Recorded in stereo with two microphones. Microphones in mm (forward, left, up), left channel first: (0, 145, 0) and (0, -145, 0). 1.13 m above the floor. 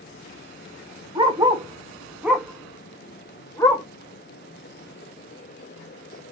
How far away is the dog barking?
About 1.0 m.